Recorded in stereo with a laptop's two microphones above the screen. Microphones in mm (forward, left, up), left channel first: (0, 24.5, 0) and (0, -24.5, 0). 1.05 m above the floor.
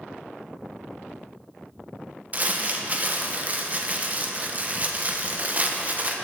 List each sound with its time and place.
2.3 s crumpling: 30° right (ahead or behind), 0.6 m